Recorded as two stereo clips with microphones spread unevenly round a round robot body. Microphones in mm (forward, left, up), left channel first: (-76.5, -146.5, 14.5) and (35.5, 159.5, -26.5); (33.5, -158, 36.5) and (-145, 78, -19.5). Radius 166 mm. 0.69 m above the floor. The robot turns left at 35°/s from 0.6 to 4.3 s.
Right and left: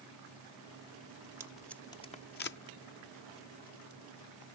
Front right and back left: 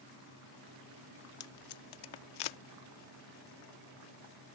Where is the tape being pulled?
10° right; by 2.6 s 50° right.